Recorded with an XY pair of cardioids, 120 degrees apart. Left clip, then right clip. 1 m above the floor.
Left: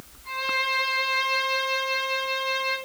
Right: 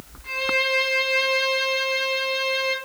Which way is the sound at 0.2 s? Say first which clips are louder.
Right 3 dB; 55° right.